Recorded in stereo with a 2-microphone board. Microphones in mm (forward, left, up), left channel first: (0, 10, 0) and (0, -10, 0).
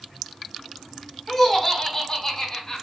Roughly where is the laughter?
Centre.